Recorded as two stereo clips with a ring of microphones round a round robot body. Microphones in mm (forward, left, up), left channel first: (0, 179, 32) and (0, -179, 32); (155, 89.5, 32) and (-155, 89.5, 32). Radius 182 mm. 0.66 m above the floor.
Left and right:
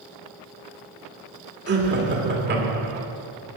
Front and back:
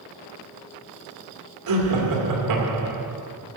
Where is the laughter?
150° right, 2 m.